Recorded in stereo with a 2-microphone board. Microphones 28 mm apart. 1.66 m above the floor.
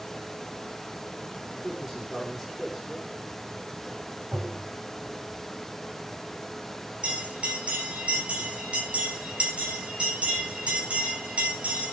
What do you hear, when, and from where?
1.5 s a man speaking: 15° right (ahead or behind), 3.5 m
4.3 s tapping: 70° right (ahead or behind), 5 m
7.0 s a bell: 55° right (ahead or behind), 9 m